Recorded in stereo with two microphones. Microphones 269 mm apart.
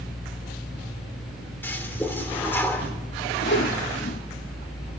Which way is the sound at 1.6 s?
5° left (ahead or behind).